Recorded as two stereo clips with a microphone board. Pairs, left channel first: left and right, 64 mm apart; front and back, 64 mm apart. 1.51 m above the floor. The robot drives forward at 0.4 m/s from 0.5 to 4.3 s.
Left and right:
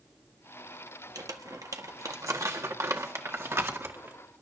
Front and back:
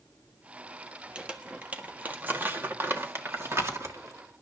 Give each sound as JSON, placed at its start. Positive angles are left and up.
{"t": 1.1, "sound": "crumpling", "azimuth_deg": -105, "distance_m": 1.6}